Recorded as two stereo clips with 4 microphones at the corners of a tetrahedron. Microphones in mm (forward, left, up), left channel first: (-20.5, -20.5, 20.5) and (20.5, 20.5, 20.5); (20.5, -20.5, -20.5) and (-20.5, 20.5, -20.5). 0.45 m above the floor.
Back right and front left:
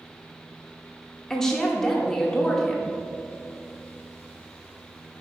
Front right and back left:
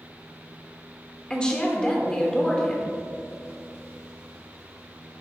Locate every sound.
1.3 s a woman speaking: 75° right, 1.0 m